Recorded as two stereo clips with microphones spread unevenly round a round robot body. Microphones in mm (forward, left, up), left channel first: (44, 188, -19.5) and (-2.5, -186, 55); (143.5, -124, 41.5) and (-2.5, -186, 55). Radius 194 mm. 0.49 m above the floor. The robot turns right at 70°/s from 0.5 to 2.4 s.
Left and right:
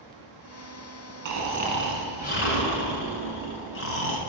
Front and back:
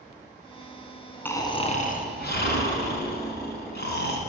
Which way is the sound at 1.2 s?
55° right.